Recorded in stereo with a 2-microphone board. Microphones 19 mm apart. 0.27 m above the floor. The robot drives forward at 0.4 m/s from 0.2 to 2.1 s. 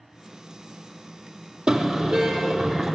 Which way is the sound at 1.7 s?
80° right.